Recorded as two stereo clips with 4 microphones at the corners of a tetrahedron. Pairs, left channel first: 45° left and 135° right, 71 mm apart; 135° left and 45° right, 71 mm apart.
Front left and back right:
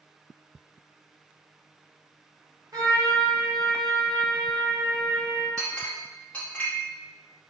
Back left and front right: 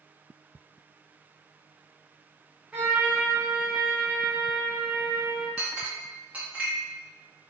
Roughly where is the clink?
Ahead.